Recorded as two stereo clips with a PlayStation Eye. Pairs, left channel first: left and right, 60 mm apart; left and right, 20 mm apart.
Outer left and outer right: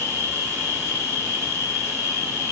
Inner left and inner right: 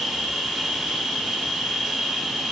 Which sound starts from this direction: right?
An insect, at 0.0 s.